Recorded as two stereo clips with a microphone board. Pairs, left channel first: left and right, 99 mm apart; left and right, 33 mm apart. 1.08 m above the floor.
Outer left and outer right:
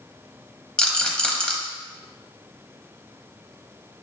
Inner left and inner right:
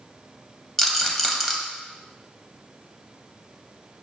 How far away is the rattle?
About 0.6 m.